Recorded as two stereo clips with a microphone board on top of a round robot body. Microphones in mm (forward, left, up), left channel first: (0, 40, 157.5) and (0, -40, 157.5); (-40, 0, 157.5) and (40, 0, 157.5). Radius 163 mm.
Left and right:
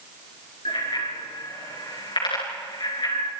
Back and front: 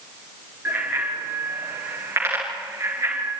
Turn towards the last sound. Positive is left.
turn(degrees=60)